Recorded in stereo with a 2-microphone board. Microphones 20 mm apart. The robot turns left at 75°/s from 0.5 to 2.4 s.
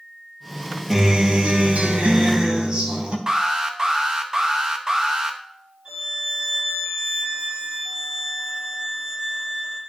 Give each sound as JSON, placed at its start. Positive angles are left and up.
{"t": 0.9, "sound": "a guitar", "azimuth_deg": -20, "distance_m": 1.8}
{"t": 3.3, "sound": "an alarm", "side_deg": -30, "distance_m": 1.0}
{"t": 5.8, "sound": "a violin", "side_deg": -40, "distance_m": 4.5}